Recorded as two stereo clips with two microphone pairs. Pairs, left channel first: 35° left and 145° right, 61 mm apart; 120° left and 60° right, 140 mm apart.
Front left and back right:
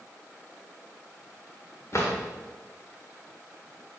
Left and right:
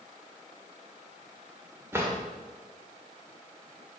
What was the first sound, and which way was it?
A drawer, 10° left.